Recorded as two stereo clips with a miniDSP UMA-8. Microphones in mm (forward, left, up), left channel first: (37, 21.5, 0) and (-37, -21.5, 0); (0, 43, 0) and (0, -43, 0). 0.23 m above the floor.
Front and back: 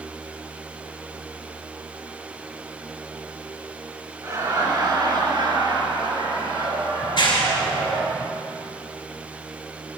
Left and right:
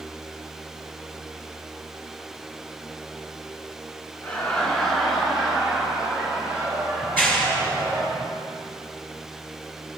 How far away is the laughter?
About 3 m.